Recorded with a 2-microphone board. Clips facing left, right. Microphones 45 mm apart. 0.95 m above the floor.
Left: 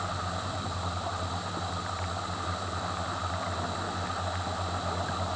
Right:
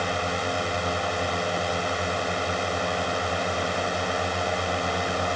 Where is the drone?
65° right (ahead or behind).